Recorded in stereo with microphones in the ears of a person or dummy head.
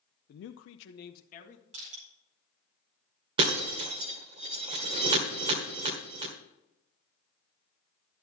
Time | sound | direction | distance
0.3 | a man speaking | 45° left (ahead or behind) | 0.5 m
1.7 | crushing | 40° right (ahead or behind) | 4.5 m
3.4 | breaking glass | 30° right (ahead or behind) | 1.4 m